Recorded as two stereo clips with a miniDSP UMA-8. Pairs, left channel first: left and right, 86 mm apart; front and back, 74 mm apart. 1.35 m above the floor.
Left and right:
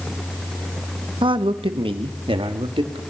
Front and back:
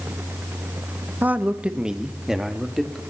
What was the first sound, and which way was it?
A man speaking, 115° right.